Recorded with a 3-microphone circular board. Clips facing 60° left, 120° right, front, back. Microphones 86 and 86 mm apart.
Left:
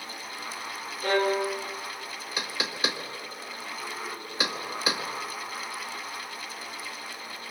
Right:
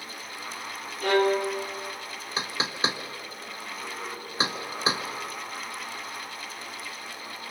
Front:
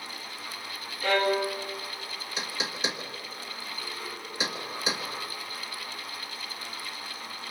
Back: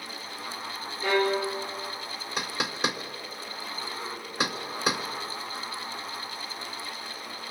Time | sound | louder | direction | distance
1.0 | a violin | right 2 dB, even | 115° right | 5.5 m
2.4 | knocking | right 2 dB, back 4 dB | 175° right | 2.0 m